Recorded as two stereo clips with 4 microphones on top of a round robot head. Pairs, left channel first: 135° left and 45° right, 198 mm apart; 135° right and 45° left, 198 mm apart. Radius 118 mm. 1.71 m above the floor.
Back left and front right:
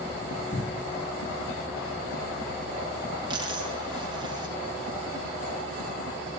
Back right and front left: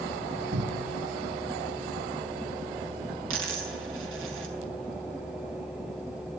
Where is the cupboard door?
80° left, 1.9 m.